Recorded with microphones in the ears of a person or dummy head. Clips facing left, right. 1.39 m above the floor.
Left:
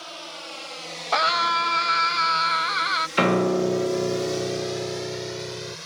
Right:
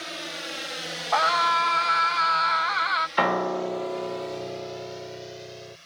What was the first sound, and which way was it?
A drone, 25° right (ahead or behind).